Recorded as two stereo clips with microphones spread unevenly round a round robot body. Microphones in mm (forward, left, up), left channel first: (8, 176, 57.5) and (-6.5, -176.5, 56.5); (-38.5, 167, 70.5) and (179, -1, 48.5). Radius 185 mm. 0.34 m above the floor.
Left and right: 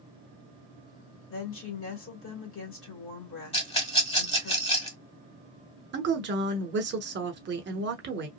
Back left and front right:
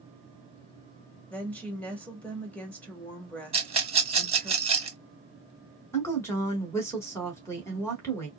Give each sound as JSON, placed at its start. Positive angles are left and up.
{"t": 1.3, "sound": "a woman speaking", "azimuth_deg": 55, "distance_m": 1.6}
{"t": 3.5, "sound": "a rattle", "azimuth_deg": 20, "distance_m": 1.2}
{"t": 5.9, "sound": "a woman speaking", "azimuth_deg": -135, "distance_m": 1.0}